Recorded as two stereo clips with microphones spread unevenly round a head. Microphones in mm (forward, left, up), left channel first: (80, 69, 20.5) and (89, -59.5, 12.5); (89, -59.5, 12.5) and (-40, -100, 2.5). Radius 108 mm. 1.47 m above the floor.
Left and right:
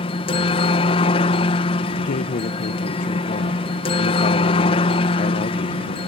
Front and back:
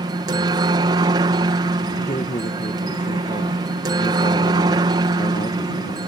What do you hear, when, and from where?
0.0 s a helicopter: 140° left
2.0 s a man speaking: 80° left